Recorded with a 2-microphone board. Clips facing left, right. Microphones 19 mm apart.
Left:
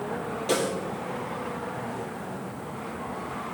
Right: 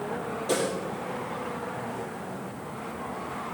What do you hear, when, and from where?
0.5 s a snare drum: 65° left (ahead or behind), 6.5 m